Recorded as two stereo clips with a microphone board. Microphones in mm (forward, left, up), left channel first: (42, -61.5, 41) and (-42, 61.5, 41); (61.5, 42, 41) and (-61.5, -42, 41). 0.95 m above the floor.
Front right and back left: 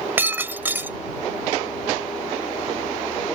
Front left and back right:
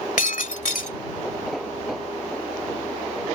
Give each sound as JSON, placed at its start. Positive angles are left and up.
{"t": 0.2, "sound": "breaking glass", "azimuth_deg": 50}